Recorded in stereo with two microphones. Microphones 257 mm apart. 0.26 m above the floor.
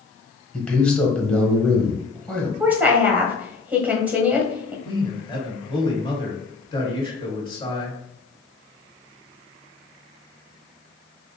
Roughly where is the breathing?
I don't hear breathing.